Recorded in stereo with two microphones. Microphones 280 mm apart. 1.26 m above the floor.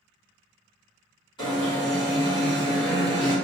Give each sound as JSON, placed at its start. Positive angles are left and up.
{"t": 1.4, "sound": "an alarm", "side_deg": 15, "distance_m": 1.5}